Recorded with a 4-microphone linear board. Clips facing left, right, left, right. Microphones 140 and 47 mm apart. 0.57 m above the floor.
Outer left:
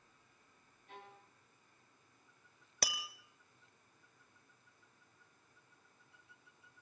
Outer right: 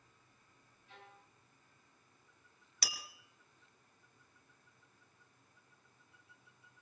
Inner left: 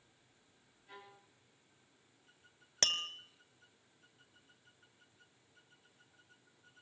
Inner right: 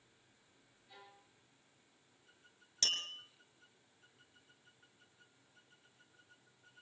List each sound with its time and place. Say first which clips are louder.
0.9 s a violin: outer left 4 dB, inner left 4 dB; 60° left (ahead or behind), 7 m
2.8 s tapping: outer left 6 dB, inner left 3 dB; 50° left (ahead or behind), 1.4 m